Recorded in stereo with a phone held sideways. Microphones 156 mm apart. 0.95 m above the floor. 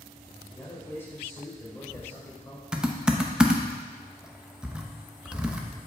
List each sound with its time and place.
0.5 s a man speaking: 15° left (ahead or behind), 3.5 m
2.7 s typing on a keyboard: 5° right (ahead or behind), 0.7 m